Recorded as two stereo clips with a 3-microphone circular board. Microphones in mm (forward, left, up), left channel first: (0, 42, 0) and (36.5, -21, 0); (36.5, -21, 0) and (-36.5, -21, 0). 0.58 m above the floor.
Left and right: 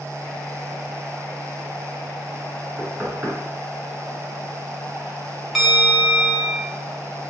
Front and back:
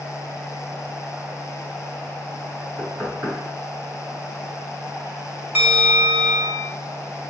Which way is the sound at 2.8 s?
130° right.